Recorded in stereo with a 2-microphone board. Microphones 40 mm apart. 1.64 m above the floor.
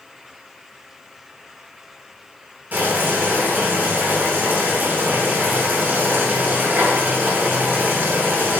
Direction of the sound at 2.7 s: 50° right (ahead or behind).